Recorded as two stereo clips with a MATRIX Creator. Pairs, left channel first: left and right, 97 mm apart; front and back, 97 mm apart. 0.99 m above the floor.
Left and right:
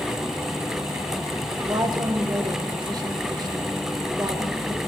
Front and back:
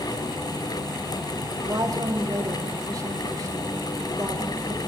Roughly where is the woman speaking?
Behind right.